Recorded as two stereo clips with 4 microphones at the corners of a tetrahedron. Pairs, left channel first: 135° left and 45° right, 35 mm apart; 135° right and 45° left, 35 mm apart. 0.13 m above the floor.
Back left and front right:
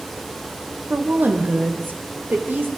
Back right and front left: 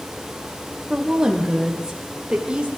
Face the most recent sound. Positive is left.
turn(degrees=-20)